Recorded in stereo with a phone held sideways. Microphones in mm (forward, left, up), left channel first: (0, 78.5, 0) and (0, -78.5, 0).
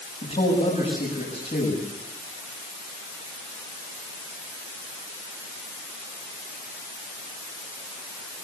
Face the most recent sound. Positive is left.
turn(degrees=50)  # may be behind; listen again after turning